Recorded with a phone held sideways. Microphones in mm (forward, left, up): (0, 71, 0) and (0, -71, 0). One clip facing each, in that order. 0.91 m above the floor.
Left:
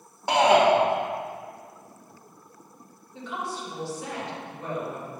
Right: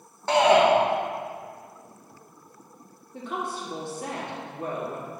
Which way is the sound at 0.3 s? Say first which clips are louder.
Right 1 dB; 15° left (ahead or behind).